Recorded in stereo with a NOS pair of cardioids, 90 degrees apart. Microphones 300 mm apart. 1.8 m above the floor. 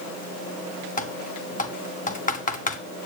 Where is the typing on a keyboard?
25° left, 1.6 m.